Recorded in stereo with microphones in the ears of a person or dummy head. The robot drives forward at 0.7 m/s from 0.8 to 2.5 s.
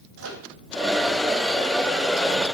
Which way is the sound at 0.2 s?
75° right (ahead or behind).